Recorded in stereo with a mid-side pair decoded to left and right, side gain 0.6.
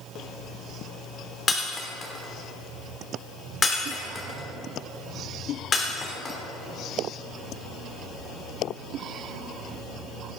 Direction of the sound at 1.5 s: 30° left.